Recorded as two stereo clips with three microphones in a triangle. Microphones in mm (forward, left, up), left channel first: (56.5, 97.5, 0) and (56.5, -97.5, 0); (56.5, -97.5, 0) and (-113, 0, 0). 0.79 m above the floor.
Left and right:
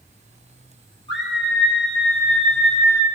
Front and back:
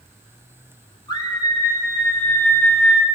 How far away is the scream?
About 6.5 m.